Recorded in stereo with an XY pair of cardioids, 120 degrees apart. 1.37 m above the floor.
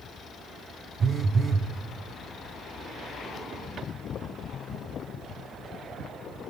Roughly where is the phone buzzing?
Ahead right.